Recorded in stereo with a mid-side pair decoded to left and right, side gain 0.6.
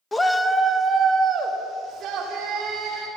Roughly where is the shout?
Ahead.